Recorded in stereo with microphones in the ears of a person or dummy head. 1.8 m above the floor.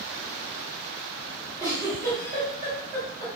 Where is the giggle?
15° right (ahead or behind), 1.4 m.